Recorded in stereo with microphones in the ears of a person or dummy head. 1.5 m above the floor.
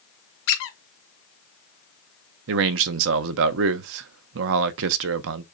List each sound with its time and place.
0.5 s a squeak: 65° left (ahead or behind), 0.9 m
2.5 s a man speaking: 65° right (ahead or behind), 0.5 m